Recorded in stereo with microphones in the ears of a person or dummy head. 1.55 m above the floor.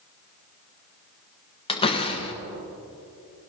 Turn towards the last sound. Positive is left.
turn(degrees=30)  # may be behind; listen again after turning